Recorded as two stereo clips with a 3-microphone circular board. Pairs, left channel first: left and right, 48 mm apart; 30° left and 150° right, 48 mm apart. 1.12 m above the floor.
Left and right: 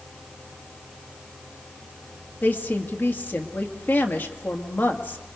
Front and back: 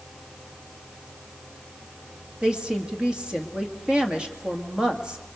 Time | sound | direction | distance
2.4 | a woman speaking | 140° left | 1.9 m